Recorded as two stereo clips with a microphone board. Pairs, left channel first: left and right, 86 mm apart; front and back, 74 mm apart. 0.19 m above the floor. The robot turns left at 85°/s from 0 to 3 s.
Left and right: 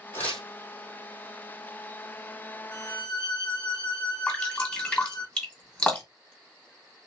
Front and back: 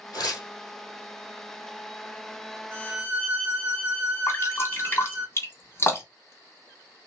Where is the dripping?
15° left, 1.9 m.